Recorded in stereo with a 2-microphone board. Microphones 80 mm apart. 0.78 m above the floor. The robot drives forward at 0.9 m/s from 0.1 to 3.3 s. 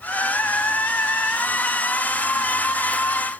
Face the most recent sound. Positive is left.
No sound to turn to.